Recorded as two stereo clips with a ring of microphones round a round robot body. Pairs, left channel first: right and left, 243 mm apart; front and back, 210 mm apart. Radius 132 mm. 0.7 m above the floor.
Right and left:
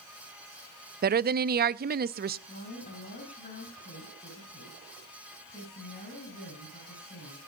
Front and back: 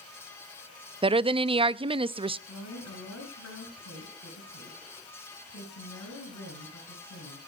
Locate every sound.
1.0 s a woman speaking: 125° left, 0.6 m
2.5 s a woman speaking: 30° right, 4 m